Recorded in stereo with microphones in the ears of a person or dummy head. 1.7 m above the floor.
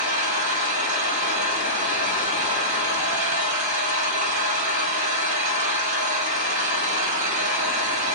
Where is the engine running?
45° right (ahead or behind), 0.7 m.